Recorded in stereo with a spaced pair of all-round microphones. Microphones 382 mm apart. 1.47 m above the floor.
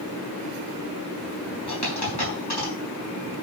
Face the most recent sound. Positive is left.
turn(degrees=70)  # may be behind; listen again after turning